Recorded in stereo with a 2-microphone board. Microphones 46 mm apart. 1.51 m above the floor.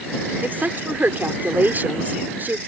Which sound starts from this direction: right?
A woman speaking, at 0.4 s.